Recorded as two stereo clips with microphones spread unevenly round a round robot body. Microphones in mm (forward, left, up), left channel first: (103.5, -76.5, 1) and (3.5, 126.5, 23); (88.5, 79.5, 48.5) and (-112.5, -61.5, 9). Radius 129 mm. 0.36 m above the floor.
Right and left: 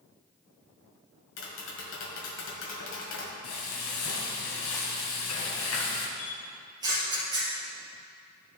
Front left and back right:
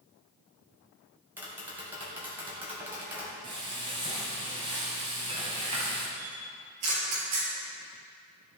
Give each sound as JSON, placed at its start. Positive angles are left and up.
{"t": 1.4, "sound": "tapping", "azimuth_deg": -70, "distance_m": 1.9}
{"t": 3.4, "sound": "frying", "azimuth_deg": -80, "distance_m": 1.7}
{"t": 6.2, "sound": "a camera shutter", "azimuth_deg": -170, "distance_m": 3.0}